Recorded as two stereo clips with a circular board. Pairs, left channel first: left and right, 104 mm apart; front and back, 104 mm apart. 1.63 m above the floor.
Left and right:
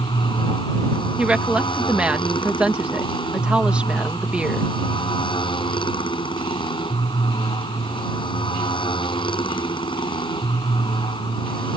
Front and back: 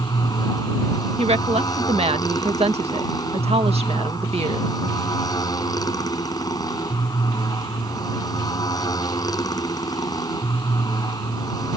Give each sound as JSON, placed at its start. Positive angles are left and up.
{"t": 0.0, "sound": "a motorcycle", "azimuth_deg": 50}
{"t": 1.2, "sound": "a woman speaking", "azimuth_deg": -170}